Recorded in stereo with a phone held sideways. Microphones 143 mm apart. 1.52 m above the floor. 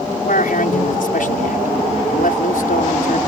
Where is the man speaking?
75° left (ahead or behind).